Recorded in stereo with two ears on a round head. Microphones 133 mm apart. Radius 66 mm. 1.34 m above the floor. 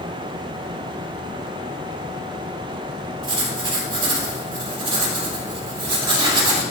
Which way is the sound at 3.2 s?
35° right (ahead or behind).